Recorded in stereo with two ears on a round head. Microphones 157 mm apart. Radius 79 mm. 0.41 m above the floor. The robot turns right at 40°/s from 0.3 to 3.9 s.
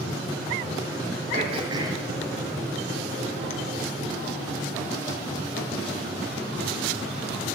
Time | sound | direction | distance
1.3 | throat clearing | 45° right (ahead or behind) | 1.6 m